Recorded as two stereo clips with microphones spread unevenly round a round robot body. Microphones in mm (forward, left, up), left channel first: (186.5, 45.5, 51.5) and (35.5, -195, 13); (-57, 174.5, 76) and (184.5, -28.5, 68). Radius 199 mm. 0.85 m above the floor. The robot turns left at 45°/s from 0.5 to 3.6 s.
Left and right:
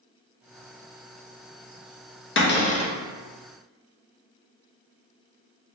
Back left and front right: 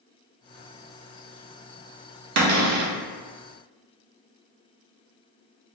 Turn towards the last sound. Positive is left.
turn(degrees=-55)